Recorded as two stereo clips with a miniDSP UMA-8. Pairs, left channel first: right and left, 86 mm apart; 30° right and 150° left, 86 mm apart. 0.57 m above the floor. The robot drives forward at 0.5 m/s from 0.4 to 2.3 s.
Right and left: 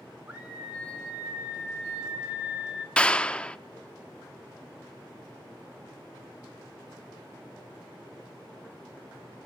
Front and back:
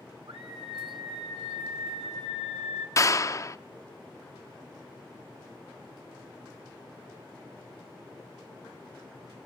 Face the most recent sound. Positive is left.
turn(degrees=-20)